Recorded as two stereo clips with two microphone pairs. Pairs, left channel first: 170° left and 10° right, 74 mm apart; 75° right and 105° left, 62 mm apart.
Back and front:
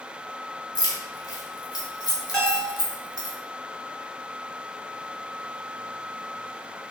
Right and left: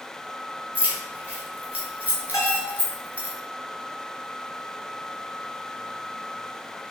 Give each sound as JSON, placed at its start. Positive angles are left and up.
{"t": 0.8, "sound": "keys jangling", "azimuth_deg": 165, "distance_m": 1.1}
{"t": 2.3, "sound": "a bell", "azimuth_deg": -105, "distance_m": 2.0}